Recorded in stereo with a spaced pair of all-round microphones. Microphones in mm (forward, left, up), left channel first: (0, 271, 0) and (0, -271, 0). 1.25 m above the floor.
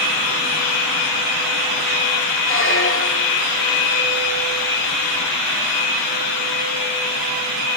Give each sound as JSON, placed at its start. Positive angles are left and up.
{"t": 2.5, "sound": "a squeak", "side_deg": 25}